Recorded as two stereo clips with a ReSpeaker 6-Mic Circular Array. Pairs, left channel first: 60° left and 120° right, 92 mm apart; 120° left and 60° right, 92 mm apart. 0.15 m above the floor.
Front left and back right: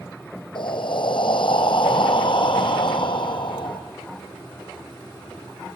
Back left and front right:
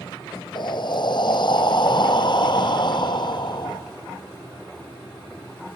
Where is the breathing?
85° left, 1.6 m.